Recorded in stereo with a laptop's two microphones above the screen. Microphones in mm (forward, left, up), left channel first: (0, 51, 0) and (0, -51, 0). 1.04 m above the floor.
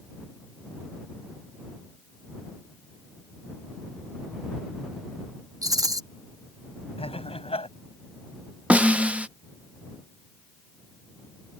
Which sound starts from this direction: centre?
A snare drum, at 8.7 s.